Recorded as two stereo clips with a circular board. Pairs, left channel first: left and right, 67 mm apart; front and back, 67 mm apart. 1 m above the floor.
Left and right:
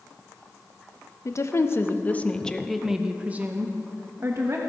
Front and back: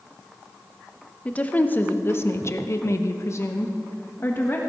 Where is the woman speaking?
65° left, 0.9 m; by 4.6 s 55° right, 1.3 m.